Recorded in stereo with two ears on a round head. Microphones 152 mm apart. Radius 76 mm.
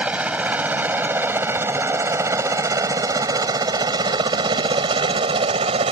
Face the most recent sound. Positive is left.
turn(degrees=-35)  # may be behind; listen again after turning